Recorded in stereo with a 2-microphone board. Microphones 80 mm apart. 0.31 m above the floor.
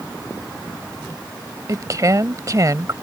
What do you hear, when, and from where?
1.7 s a woman speaking: 45° right (ahead or behind)